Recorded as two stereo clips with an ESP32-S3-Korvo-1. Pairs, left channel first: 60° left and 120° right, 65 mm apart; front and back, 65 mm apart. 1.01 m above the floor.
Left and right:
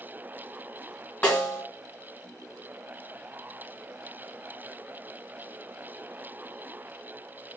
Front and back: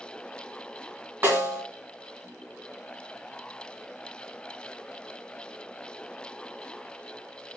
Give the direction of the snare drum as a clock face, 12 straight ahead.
8 o'clock.